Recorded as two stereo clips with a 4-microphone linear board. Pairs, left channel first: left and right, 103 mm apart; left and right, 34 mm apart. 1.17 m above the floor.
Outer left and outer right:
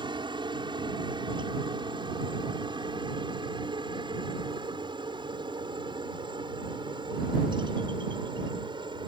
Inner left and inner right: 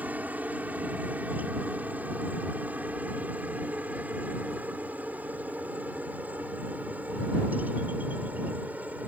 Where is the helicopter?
50° right (ahead or behind).